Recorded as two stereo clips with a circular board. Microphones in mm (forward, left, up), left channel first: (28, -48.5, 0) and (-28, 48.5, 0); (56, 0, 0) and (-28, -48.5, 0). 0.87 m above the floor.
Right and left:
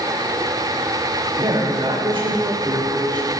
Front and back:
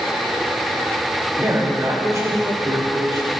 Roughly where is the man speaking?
Behind left.